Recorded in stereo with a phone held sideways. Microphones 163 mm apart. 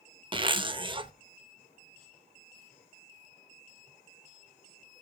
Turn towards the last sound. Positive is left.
turn(degrees=-30)  # may be behind; listen again after turning